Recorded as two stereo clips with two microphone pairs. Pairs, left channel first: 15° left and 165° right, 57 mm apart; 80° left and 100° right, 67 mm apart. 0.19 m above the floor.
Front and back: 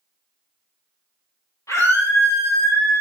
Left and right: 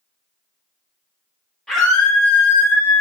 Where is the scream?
Straight ahead, 3.5 m; by 3.0 s 20° left, 4 m.